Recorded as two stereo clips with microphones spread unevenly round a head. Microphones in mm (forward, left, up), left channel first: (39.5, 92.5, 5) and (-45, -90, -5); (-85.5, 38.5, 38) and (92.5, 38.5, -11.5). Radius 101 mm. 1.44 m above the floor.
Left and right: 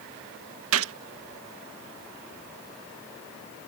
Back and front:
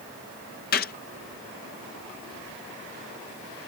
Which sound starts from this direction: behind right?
A gunshot, at 0.7 s.